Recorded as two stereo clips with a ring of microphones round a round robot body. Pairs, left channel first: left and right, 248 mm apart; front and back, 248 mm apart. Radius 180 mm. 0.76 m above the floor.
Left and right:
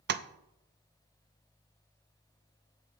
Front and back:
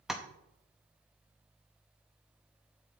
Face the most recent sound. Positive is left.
turn(degrees=-90)